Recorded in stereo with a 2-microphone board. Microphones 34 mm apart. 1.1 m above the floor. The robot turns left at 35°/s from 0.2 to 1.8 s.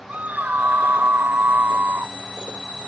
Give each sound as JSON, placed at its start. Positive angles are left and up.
{"t": 0.1, "sound": "a scream", "azimuth_deg": -45}